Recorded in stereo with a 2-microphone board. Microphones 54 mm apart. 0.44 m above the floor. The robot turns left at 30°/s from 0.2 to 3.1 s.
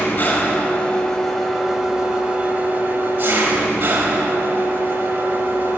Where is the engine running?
45° left, 1.5 m; by 5.8 s 45° right, 1.5 m.